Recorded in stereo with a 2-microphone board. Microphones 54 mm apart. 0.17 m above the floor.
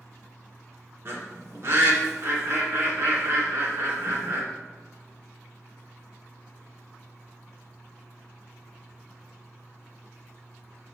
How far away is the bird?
About 2 m.